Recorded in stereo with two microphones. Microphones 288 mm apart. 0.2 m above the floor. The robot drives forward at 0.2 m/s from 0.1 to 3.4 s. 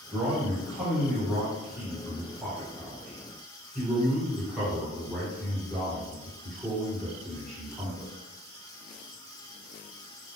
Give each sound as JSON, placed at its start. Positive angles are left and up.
{"t": 0.1, "sound": "a man speaking", "side_deg": 0, "distance_m": 1.4}